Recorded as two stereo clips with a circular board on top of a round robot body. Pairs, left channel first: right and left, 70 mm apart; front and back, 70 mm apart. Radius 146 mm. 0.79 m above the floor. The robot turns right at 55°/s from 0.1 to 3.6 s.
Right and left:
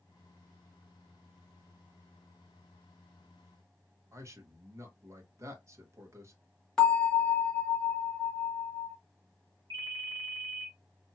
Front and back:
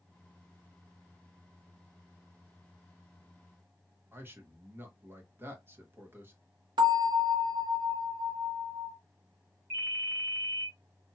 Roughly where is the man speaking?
Behind left.